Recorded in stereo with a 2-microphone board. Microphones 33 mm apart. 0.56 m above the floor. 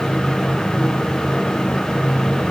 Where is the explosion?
No explosion in this recording.